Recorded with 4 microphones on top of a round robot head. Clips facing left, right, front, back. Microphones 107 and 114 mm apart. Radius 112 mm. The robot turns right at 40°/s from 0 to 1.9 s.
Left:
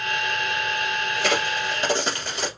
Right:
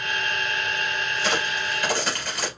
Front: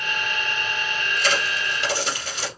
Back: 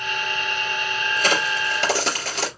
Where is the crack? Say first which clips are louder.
Left 3 dB, back 3 dB; 135° left, 3 m; by 2.5 s 165° left, 3 m.